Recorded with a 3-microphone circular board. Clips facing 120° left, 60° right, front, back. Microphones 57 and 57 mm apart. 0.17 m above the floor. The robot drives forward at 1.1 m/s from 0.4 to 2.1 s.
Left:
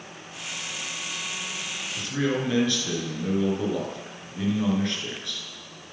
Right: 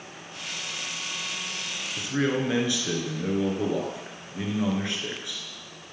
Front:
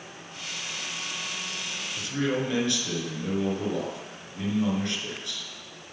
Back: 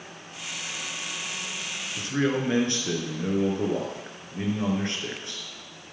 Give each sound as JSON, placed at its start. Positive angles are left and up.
{"t": 2.0, "sound": "a man speaking", "azimuth_deg": -125, "distance_m": 2.5}